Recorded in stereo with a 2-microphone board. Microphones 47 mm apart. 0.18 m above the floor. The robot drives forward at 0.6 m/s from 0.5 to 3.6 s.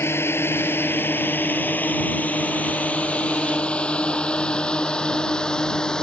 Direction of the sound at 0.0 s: 60° left (ahead or behind).